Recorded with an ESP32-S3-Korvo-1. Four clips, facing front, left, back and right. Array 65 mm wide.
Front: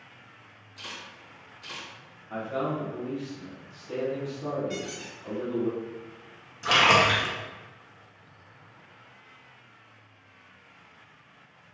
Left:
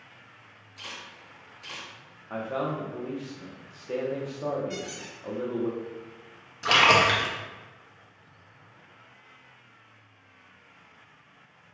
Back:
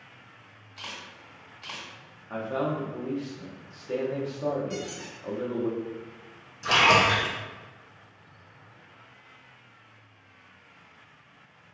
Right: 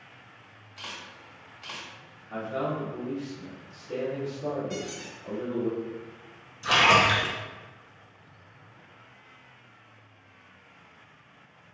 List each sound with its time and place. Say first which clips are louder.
0.8 s a camera shutter: right 1 dB, back 1 dB; 140° right, 1.4 m
2.3 s a man speaking: even, back 1 dB; 125° left, 1.0 m
4.7 s a squeak: right 1 dB, even; 35° left, 1.5 m
6.6 s a splash: even, even; 80° left, 0.8 m